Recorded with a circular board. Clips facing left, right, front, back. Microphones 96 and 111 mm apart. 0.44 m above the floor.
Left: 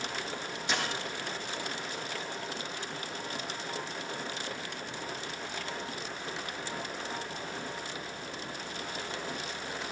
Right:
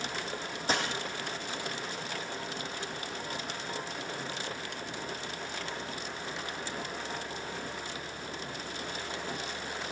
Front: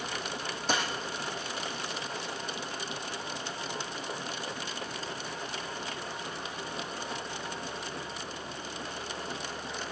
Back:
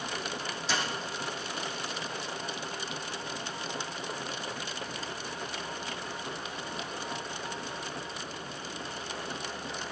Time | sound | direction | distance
0.7 | a dropped coin | 40° right | 4 m